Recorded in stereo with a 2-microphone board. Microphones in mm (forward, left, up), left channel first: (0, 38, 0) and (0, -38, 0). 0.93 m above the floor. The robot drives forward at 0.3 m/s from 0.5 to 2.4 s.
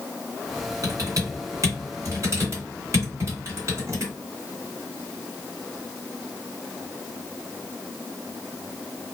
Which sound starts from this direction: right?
Typing on a keyboard, at 0.8 s.